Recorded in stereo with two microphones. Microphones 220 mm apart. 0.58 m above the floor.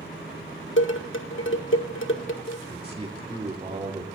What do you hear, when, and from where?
0.8 s dishes clattering: 70° left (ahead or behind), 1.4 m
2.7 s a man speaking: 30° right (ahead or behind), 2 m